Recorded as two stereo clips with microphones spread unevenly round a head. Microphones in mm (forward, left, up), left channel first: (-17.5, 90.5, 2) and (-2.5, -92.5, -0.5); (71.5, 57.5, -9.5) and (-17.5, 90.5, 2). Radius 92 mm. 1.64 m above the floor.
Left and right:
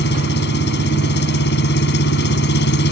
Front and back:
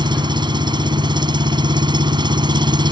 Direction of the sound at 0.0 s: 125° left.